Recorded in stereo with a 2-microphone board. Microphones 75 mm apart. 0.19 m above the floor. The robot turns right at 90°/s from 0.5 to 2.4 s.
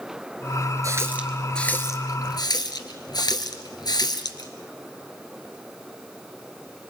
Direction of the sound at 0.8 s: 50° right (ahead or behind).